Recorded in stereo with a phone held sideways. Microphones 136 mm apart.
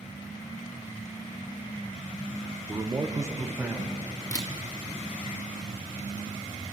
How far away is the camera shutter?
About 0.8 m.